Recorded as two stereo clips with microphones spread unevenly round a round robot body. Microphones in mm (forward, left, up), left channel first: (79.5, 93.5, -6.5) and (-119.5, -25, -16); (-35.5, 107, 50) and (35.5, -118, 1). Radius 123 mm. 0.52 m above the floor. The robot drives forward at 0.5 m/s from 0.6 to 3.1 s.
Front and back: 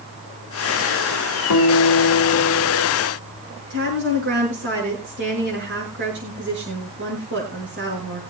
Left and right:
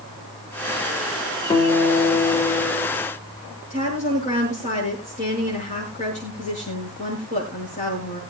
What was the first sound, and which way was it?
A guitar, 30° left.